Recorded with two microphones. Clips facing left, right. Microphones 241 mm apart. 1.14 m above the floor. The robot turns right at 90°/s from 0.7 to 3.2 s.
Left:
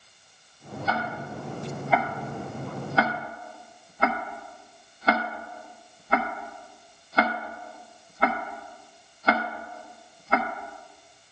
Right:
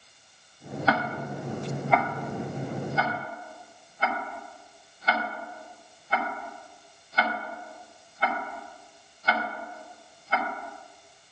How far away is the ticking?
About 0.7 m.